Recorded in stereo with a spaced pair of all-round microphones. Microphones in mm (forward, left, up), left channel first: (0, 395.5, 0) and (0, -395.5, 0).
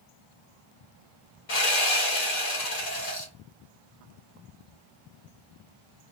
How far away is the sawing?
About 1.6 m.